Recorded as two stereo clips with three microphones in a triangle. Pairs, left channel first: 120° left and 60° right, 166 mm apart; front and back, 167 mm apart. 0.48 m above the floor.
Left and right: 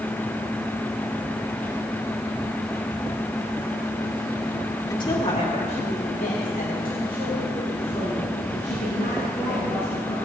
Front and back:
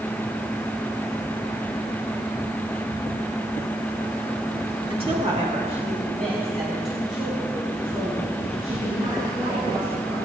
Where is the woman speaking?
170° left, 1.3 m; by 10.1 s 125° left, 7 m.